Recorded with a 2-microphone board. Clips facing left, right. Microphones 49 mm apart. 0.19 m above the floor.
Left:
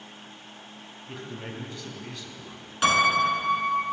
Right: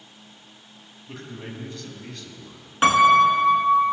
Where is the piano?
30° right (ahead or behind), 1.2 m.